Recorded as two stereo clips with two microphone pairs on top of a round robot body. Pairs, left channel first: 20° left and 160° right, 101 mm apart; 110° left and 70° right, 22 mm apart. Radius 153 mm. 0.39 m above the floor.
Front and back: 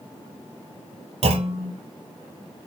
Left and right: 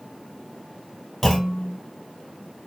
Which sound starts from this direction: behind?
A clunk, at 1.2 s.